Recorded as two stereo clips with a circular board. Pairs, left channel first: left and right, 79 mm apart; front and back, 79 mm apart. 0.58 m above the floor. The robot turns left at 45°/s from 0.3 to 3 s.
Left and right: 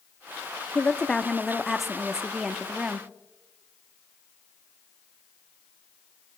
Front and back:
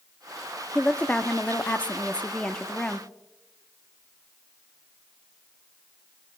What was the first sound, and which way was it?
A woman speaking, 45° left.